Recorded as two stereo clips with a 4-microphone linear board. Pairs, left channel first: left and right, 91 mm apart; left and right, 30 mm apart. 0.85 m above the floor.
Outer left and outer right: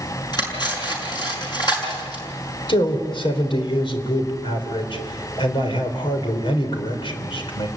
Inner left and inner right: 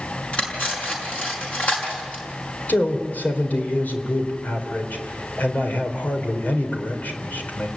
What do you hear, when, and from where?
0.3 s cutlery clinking: 50° left (ahead or behind), 6.5 m
2.7 s a man speaking: 70° left (ahead or behind), 4 m